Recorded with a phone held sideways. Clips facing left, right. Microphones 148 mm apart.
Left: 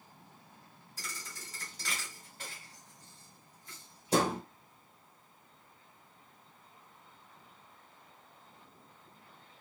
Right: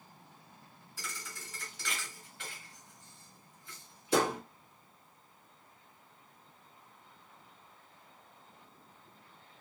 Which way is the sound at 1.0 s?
45° left (ahead or behind).